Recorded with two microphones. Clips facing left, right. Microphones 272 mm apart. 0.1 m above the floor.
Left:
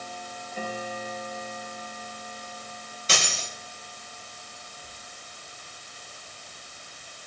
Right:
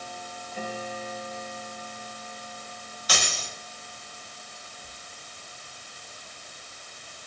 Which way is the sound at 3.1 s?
30° left (ahead or behind).